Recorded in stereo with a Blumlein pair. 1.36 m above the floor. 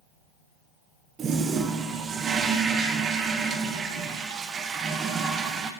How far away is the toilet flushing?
About 0.8 m.